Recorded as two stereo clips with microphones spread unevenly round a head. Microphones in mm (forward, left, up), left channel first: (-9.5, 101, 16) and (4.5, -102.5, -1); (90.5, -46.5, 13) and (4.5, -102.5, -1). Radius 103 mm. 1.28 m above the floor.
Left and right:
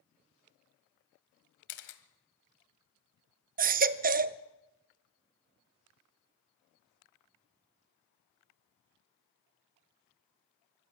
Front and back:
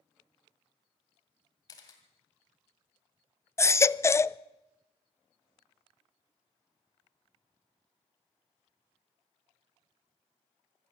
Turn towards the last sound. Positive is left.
turn(degrees=-35)